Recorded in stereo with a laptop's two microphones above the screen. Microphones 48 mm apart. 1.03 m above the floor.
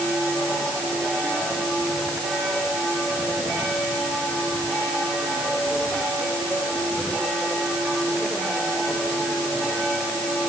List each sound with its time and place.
Only background noise.